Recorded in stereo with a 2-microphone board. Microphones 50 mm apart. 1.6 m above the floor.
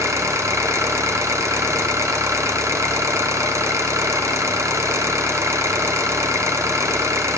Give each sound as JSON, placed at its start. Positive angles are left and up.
{"t": 0.0, "sound": "an engine running", "side_deg": -75, "distance_m": 0.8}